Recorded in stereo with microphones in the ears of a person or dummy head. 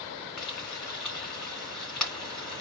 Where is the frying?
Centre (ahead or behind), 3.5 m.